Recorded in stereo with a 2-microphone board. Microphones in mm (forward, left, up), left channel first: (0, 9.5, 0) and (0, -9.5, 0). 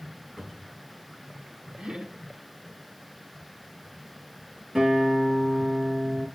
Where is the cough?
I don't hear a cough.